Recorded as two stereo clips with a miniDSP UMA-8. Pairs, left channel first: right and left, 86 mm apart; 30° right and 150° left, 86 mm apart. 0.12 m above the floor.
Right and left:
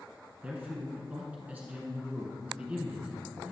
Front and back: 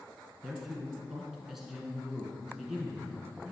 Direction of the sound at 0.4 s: 70° left.